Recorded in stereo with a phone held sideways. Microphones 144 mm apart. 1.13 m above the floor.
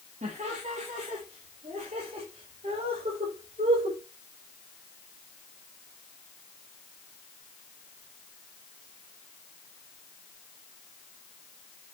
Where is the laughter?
50° right (ahead or behind), 2 m; by 4.0 s 45° right (ahead or behind), 5.5 m.